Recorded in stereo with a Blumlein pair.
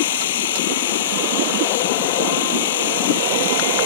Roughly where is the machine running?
Ahead left.